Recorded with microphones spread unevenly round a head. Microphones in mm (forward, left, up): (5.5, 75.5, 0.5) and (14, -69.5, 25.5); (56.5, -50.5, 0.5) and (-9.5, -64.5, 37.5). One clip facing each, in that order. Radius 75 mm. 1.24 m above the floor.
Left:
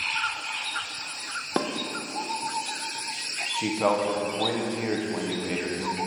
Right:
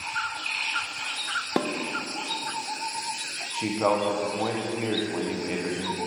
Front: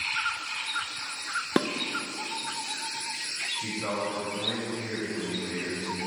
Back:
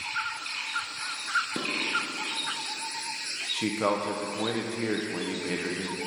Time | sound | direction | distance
1.6 | dishes clattering | 5° right | 0.5 m
3.5 | a man speaking | 175° left | 1.0 m